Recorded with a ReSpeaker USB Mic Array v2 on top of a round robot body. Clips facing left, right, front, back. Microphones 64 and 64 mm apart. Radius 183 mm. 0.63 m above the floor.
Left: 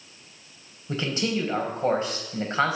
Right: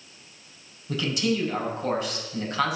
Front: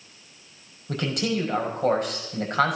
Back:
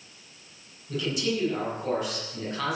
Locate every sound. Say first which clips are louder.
0.9 s a man speaking: right 1 dB, front 2 dB; 35° left, 5 m